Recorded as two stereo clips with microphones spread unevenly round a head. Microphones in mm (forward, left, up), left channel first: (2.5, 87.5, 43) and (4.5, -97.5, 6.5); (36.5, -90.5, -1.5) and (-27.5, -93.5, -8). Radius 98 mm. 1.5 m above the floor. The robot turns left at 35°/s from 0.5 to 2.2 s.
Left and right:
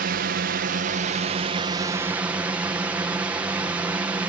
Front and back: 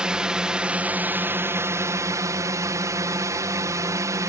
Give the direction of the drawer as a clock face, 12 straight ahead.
No drawer in this recording.